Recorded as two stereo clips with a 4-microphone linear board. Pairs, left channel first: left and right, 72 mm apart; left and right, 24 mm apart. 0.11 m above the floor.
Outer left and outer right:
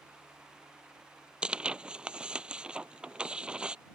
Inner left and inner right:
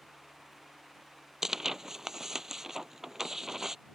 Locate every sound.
1.4 s tearing paper: 15° right (ahead or behind)